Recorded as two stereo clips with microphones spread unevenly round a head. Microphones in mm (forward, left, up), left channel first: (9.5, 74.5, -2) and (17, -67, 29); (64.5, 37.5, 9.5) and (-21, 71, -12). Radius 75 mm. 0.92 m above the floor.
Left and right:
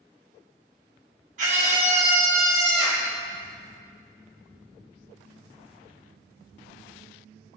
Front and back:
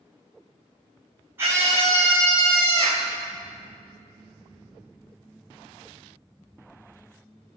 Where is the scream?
130° right, 3 m; by 3.1 s 155° right, 3 m.